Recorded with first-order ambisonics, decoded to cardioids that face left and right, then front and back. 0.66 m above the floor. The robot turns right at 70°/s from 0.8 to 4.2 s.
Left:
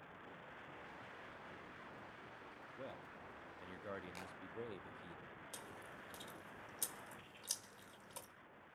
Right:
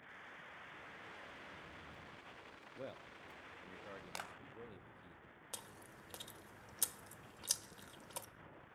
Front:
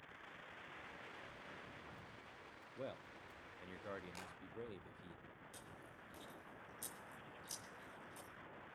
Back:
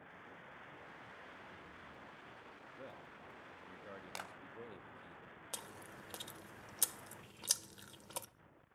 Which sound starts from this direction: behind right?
A clap, at 4.2 s.